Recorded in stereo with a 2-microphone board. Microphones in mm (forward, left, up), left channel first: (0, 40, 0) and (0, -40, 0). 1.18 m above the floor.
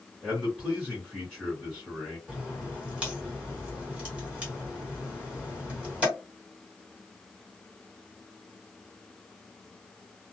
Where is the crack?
15° right (ahead or behind), 1.6 m.